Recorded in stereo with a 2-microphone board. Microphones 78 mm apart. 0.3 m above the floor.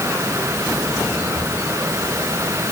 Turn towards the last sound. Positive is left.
No sound to turn to.